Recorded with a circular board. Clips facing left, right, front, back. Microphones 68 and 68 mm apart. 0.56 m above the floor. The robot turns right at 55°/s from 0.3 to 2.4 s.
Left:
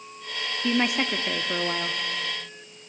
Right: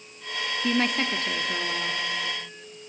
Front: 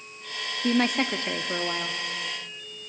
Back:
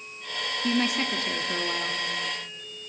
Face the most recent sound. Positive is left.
turn(degrees=105)